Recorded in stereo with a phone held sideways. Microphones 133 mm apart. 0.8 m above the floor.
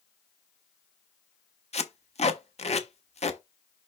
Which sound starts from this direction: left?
Tape being pulled, at 1.7 s.